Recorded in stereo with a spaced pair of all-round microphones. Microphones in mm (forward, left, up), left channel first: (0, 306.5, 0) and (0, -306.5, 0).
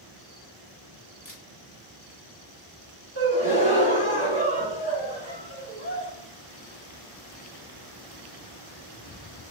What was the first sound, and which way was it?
A camera shutter, 55° left (ahead or behind).